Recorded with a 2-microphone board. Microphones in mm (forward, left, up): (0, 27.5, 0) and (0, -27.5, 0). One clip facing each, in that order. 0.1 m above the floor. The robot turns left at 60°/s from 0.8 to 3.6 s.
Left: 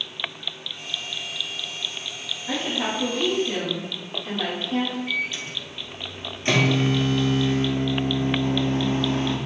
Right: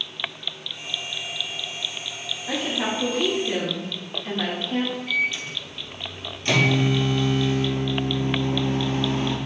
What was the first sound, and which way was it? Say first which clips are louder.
A woman speaking: even; 5° right (ahead or behind).